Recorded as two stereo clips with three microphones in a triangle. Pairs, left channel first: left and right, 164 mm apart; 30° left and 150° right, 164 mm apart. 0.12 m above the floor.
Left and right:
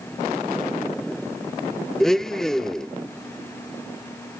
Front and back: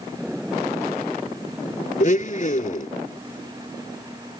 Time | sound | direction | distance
2.0 | a blender | 5° left | 0.5 m